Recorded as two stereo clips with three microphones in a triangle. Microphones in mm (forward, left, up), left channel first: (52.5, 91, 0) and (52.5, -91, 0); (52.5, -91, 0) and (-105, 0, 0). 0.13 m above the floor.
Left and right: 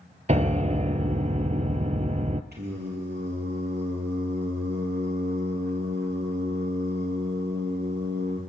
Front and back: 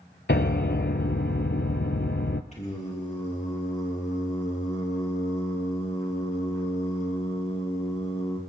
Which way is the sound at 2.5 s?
75° right.